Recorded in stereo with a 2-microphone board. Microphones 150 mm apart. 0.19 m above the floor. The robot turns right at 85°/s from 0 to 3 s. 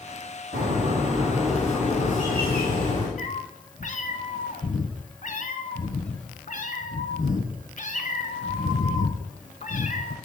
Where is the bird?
80° right, 2.5 m; by 3.1 s 130° left, 2.5 m.